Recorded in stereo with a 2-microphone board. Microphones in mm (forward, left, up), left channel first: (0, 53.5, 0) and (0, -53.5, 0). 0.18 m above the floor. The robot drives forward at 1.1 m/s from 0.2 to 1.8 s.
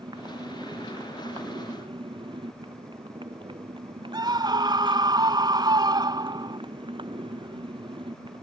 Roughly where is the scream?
Right.